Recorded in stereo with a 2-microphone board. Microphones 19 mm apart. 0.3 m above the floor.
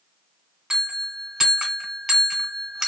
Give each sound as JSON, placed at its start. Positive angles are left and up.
{"t": 0.7, "sound": "a bell", "side_deg": -25, "distance_m": 1.0}